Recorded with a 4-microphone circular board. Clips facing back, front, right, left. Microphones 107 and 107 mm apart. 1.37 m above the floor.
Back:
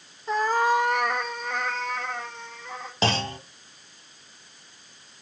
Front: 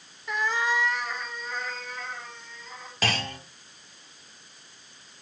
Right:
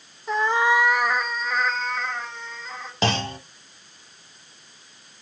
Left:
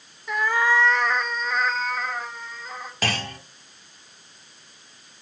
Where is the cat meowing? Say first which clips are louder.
Back 6 dB, right 2 dB; 135° right, 0.8 m; by 2.9 s 170° left, 2.5 m.